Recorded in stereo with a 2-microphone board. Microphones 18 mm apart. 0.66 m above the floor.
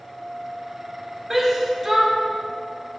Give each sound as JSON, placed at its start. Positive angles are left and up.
{"t": 1.3, "sound": "a shout", "side_deg": -25, "distance_m": 2.5}